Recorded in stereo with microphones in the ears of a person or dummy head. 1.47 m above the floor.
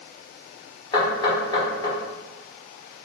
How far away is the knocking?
About 1.3 m.